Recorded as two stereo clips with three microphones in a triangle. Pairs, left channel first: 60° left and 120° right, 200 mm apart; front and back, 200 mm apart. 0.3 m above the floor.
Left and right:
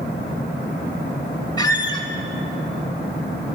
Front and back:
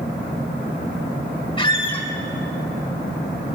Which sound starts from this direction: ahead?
A squeak, at 1.6 s.